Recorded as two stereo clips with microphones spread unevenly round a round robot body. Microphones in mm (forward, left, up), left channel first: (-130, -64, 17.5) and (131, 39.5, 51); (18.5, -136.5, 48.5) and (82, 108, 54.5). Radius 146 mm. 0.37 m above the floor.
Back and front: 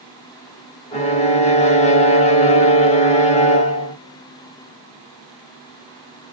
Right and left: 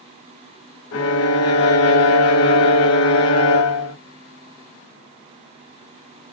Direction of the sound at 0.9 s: 95° right.